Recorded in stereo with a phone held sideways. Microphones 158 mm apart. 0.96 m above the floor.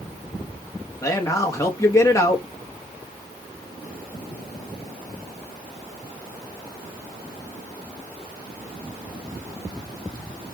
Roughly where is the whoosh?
I don't hear a whoosh.